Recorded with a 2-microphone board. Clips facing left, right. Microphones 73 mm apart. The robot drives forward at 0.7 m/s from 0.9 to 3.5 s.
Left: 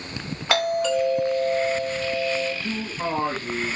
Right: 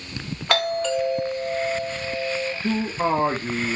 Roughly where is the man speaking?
Right.